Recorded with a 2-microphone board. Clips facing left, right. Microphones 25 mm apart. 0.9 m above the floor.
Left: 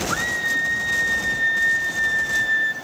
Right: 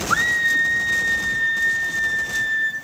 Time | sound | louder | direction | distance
0.1 | a scream | right 6 dB | 20° right (ahead or behind) | 0.7 m